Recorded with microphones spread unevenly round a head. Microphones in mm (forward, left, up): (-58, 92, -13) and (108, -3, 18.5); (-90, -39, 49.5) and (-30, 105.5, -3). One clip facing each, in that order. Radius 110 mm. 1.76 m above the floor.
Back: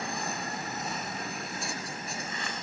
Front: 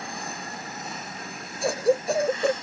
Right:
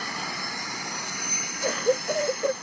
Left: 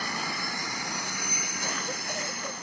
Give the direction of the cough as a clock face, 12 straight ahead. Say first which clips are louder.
Front 16 dB, right 14 dB; 2 o'clock.